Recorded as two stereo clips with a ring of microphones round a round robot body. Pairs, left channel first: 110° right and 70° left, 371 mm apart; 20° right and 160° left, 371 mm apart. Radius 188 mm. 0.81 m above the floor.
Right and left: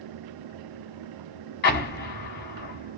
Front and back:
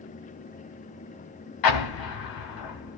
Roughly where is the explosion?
Ahead right.